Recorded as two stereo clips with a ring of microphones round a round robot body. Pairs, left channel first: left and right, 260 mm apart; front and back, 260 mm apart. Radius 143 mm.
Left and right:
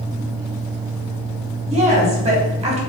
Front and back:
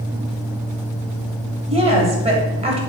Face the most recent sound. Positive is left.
turn(degrees=-135)